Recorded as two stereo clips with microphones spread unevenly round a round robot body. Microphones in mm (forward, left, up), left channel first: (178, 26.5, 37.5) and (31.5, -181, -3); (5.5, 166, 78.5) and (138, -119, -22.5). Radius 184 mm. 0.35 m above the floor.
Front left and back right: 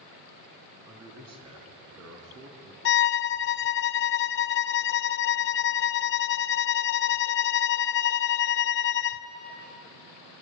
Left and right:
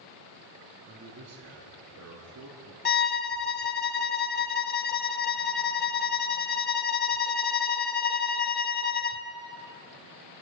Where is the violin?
45° left, 0.8 m.